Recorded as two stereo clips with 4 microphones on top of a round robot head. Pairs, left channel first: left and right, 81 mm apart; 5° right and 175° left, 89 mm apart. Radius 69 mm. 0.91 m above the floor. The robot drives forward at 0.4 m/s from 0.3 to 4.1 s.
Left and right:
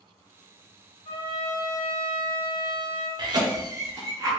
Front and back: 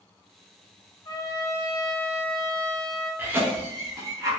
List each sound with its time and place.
1.1 s a trumpet: 40° left, 1.3 m; by 3.1 s 85° left, 0.9 m
3.2 s a cough: 115° right, 0.8 m; by 4.3 s 135° right, 1.0 m